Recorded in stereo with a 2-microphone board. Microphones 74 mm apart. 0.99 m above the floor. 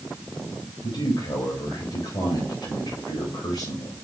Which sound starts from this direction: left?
A man speaking, at 0.8 s.